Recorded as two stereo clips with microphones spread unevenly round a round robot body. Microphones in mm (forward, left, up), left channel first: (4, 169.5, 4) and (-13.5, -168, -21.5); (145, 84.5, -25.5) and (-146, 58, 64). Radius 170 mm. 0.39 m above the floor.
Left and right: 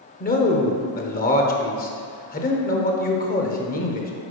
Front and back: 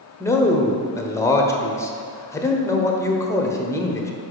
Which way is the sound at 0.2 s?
40° left.